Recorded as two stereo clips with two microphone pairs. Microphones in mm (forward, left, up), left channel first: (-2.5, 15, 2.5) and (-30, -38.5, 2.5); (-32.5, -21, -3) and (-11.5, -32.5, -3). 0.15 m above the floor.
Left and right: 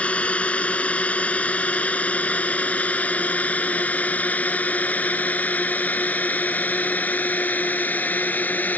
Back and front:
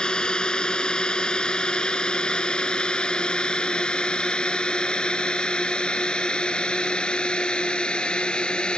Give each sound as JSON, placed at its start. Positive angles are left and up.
{"t": 0.0, "sound": "a drone", "azimuth_deg": 125}